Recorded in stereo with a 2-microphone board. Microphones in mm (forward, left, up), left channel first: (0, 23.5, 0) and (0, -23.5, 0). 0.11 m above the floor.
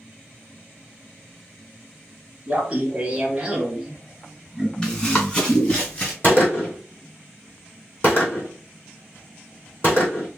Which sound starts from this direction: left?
A gunshot, at 6.2 s.